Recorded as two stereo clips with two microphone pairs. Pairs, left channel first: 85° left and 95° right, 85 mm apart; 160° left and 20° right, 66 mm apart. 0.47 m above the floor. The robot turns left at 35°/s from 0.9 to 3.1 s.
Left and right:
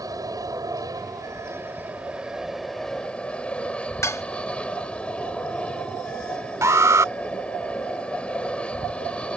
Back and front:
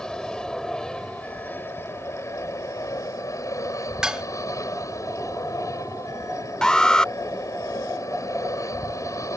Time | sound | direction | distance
0.0 | an aircraft | 125° right | ?
4.0 | dishes clattering | 55° left | ?
6.6 | an alarm | 125° right | ?